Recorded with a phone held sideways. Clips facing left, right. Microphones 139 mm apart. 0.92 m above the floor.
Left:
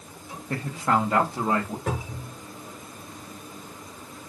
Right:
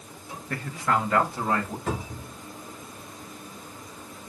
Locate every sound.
0.5 s a man speaking: 25° left (ahead or behind), 0.8 m; by 1.8 s 20° left (ahead or behind), 1.1 m
1.9 s a cupboard door: 60° left (ahead or behind), 3.5 m